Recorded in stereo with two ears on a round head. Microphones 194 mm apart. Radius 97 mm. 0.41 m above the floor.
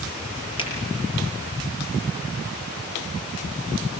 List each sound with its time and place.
0.6 s a finger snap: 25° left (ahead or behind), 7 m